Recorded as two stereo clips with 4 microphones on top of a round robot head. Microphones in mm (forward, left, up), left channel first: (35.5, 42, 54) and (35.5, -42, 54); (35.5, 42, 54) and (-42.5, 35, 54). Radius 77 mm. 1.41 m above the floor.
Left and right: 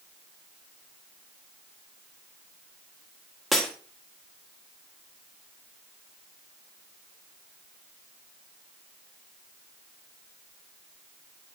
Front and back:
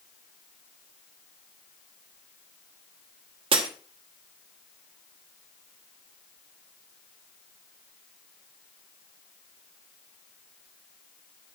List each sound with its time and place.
3.5 s breaking glass: straight behind, 1.5 m